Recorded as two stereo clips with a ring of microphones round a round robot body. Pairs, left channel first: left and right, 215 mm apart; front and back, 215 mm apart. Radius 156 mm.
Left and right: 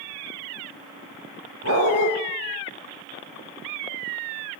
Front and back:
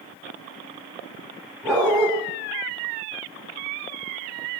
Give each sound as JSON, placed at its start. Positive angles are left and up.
{"t": 1.6, "sound": "a dog barking", "azimuth_deg": -90, "distance_m": 3.5}